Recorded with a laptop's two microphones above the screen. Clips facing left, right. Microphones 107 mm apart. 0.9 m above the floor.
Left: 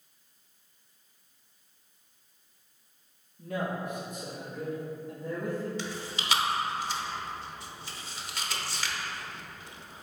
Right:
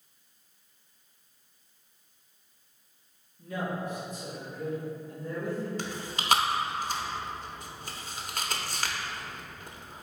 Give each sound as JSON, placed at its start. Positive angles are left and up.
{"t": 3.4, "sound": "a man speaking", "side_deg": 55, "distance_m": 1.6}
{"t": 5.8, "sound": "chewing", "side_deg": -50, "distance_m": 0.7}